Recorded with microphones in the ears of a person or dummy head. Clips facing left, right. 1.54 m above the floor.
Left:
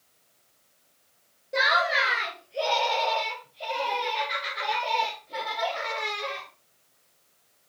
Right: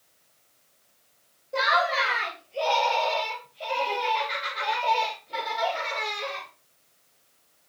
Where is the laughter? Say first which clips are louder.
Right 1 dB; 25° left (ahead or behind), 2.5 m; by 6.5 s 20° right (ahead or behind), 5 m.